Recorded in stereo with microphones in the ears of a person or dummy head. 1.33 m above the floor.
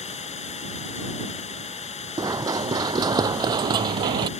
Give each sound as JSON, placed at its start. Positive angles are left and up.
{"t": 0.0, "sound": "running water", "side_deg": 35}
{"t": 2.2, "sound": "running footsteps", "side_deg": -25}